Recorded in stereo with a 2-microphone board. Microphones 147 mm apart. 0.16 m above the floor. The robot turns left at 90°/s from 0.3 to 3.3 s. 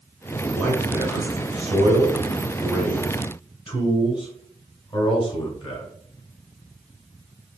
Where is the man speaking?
10° left (ahead or behind), 1.8 m; by 5.9 s 25° left (ahead or behind), 1.8 m.